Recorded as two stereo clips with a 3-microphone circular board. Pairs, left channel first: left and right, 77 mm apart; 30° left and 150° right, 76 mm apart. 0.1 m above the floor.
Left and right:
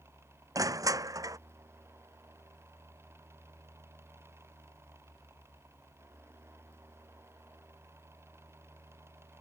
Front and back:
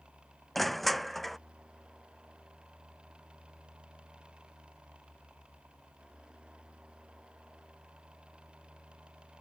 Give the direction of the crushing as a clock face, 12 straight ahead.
2 o'clock.